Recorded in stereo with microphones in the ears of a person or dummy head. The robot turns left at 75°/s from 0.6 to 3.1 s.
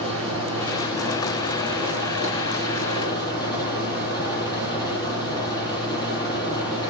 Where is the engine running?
150° right, 8.5 m; by 6.9 s 25° left, 8.5 m.